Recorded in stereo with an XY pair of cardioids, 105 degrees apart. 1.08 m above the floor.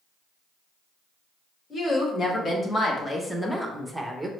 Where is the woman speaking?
45° left, 1.5 m; by 4.3 s 20° right, 0.8 m.